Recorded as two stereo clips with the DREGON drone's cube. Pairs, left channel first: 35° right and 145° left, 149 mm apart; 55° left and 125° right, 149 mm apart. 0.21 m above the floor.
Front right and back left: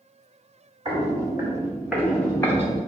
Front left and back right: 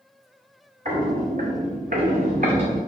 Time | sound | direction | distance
0.8 | footsteps | 160° right | 1.2 m